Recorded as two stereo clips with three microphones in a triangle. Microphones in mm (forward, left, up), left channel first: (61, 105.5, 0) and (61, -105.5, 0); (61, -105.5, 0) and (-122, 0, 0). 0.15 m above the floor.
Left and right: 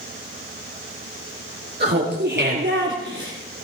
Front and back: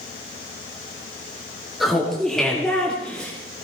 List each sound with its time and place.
1.8 s laughter: 120° right, 3 m; by 3.3 s 115° right, 4 m